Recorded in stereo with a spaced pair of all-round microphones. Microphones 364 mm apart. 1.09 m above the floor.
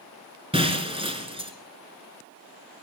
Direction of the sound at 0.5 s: 15° right (ahead or behind).